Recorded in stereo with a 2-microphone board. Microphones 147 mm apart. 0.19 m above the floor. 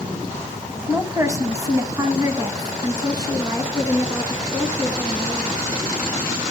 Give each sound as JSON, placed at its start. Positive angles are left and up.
{"t": 0.9, "sound": "a woman speaking", "side_deg": -15, "distance_m": 1.1}